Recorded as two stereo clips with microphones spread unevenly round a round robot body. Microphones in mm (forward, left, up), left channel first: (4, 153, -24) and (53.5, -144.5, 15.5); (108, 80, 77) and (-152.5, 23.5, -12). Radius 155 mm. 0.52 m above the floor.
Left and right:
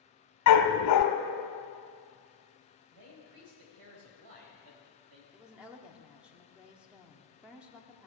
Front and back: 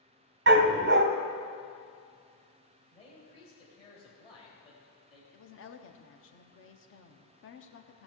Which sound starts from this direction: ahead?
A woman speaking, at 5.3 s.